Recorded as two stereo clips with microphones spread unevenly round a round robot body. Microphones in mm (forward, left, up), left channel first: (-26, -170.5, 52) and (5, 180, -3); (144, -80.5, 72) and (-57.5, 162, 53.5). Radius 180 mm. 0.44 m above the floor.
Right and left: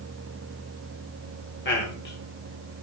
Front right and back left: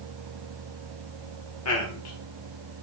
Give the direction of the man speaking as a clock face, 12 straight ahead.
1 o'clock.